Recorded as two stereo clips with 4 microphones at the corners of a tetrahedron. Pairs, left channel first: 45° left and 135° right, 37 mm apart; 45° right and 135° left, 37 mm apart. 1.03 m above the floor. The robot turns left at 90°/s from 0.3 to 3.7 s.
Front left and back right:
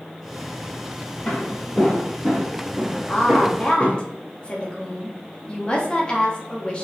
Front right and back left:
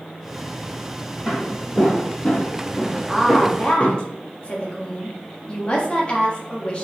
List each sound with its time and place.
1.2 s footsteps: 30° left, 1.9 m; by 4.0 s 110° right, 1.3 m
3.1 s a woman speaking: 50° left, 0.7 m; by 6.8 s 5° right, 0.7 m